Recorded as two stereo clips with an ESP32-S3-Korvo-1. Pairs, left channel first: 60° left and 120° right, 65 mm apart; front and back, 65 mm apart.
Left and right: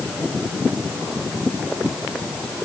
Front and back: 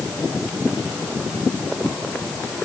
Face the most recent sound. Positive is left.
No sound to turn to.